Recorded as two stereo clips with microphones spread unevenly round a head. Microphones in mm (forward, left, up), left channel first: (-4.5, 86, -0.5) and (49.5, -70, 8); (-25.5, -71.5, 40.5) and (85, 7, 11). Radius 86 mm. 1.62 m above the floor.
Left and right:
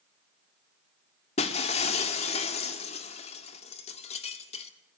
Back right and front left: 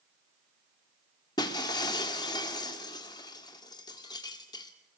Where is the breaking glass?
160° left, 1.8 m.